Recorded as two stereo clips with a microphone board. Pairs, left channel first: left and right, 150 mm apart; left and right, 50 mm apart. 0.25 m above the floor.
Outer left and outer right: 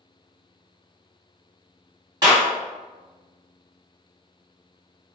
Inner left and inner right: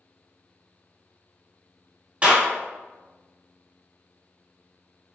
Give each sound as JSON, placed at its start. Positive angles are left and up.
{"t": 2.2, "sound": "a clap", "side_deg": -25, "distance_m": 1.5}